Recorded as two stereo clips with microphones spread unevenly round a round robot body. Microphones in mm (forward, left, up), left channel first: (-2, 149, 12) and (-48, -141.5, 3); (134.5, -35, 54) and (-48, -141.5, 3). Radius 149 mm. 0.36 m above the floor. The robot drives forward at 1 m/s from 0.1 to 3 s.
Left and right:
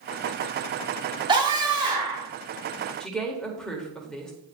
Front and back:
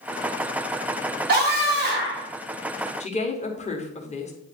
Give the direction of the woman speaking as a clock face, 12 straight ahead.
12 o'clock.